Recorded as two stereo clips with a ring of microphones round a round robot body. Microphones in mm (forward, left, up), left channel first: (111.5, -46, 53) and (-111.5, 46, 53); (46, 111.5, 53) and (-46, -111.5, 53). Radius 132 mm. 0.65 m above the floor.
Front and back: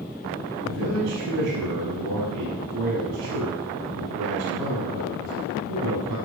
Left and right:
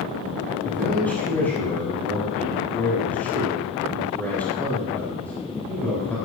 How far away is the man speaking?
About 7 m.